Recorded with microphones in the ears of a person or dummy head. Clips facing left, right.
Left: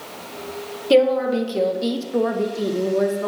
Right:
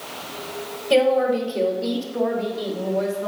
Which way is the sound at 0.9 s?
60° left (ahead or behind).